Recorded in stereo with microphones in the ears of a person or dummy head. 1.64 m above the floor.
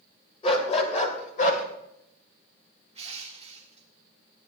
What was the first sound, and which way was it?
A dog barking, 35° left (ahead or behind).